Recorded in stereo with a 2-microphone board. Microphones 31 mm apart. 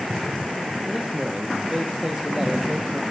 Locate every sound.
0.9 s a man speaking: 20° right (ahead or behind), 2.5 m